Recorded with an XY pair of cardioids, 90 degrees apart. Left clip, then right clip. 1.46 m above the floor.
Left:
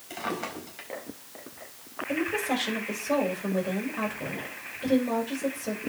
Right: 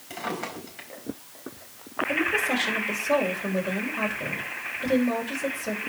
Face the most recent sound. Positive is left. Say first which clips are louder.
# right 4 dB
turn(degrees=-10)